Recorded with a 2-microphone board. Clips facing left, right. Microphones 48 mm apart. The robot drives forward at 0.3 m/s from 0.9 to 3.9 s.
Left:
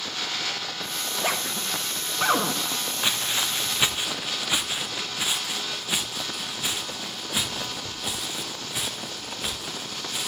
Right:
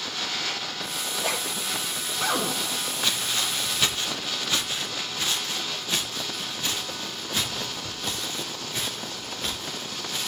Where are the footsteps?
25° left (ahead or behind), 2.5 m; by 10.3 s 15° left (ahead or behind), 9 m.